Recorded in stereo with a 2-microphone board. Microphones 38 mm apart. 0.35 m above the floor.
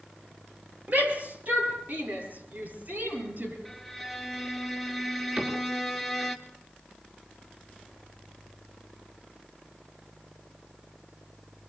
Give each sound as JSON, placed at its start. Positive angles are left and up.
{"t": 0.9, "sound": "a shout", "side_deg": -55, "distance_m": 8.0}
{"t": 3.6, "sound": "a violin", "side_deg": 5, "distance_m": 1.7}
{"t": 5.4, "sound": "a cupboard door", "side_deg": -35, "distance_m": 5.0}